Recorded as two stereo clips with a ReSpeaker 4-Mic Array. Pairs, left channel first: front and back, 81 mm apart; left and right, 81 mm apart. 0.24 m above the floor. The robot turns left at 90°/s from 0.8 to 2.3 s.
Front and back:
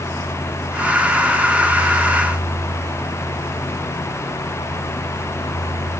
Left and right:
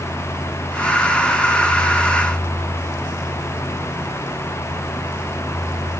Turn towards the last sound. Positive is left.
No sound to turn to.